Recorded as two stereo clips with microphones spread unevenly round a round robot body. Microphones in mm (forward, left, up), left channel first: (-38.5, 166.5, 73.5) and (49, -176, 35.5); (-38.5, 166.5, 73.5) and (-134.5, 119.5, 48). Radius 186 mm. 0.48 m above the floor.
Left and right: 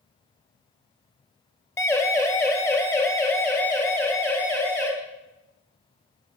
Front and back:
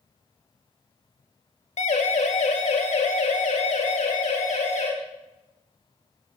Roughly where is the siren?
Ahead.